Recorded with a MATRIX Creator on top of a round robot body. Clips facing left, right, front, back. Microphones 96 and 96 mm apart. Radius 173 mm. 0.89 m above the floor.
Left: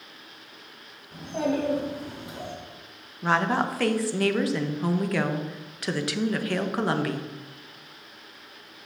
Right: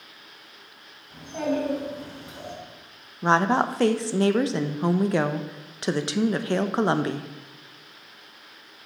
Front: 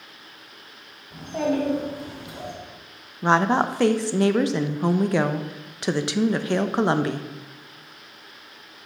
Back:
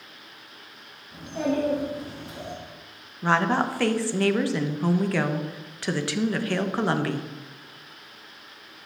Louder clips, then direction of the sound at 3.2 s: Right 3 dB, front 3 dB; 50° right.